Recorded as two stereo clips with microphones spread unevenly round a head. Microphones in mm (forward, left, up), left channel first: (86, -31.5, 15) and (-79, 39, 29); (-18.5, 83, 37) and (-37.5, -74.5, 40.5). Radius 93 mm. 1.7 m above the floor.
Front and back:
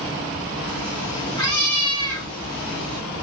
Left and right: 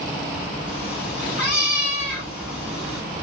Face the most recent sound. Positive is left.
turn(degrees=45)